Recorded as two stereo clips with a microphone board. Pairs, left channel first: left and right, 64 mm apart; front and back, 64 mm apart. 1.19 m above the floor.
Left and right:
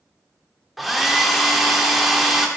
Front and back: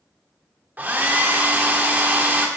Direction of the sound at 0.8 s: 175° right.